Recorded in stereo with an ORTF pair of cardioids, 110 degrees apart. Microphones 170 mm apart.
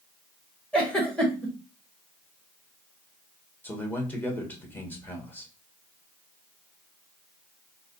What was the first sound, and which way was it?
A giggle, 5° left.